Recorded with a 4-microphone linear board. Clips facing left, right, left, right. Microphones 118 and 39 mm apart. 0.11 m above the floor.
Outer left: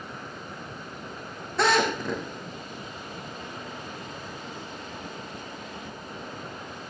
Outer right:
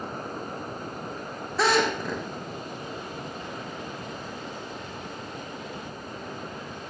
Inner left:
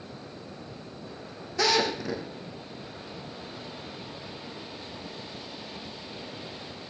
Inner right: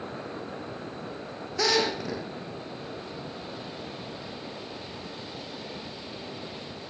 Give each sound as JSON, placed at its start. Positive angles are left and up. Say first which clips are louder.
{"t": 1.6, "sound": "a drill", "louder": "even, even", "side_deg": 0, "distance_m": 4.0}